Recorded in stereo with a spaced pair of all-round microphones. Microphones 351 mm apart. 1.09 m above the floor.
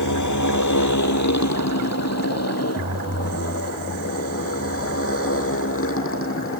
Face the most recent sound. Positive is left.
turn(degrees=35)  # may be behind; listen again after turning